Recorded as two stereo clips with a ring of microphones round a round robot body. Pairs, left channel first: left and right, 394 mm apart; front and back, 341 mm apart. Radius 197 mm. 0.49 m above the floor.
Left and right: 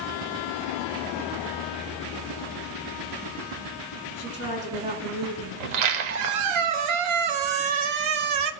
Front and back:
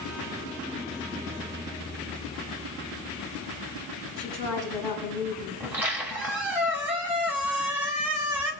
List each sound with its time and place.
4.2 s a woman speaking: 20° right, 7 m
5.6 s a squeak: 95° right, 1.1 m